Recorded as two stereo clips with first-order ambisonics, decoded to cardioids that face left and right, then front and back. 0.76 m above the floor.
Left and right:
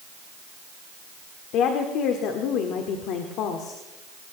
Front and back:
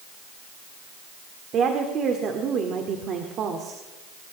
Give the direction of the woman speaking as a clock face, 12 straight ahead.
8 o'clock.